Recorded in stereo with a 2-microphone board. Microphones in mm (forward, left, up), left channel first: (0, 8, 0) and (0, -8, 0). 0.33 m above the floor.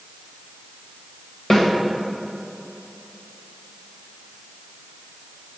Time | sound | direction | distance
1.5 | a snare drum | 40° left (ahead or behind) | 1.5 m